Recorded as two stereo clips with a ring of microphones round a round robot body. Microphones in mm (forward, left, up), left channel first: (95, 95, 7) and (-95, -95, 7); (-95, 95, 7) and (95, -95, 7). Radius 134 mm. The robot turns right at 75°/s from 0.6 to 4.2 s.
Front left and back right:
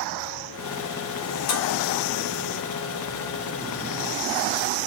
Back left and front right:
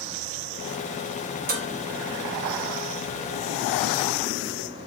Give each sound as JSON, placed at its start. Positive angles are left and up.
{"t": 1.5, "sound": "dishes clattering", "azimuth_deg": 15, "distance_m": 2.0}